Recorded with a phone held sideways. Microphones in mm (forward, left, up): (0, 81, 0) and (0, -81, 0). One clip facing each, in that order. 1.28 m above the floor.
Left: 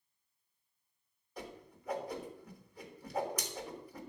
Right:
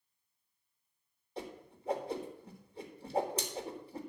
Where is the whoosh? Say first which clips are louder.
Right 3 dB; 25° right (ahead or behind), 1.4 m.